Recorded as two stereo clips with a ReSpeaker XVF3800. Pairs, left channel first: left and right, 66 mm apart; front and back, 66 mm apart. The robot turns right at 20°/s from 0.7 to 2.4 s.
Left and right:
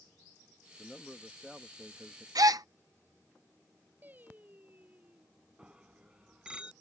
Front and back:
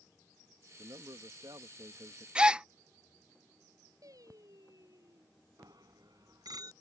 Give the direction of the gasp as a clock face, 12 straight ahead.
3 o'clock.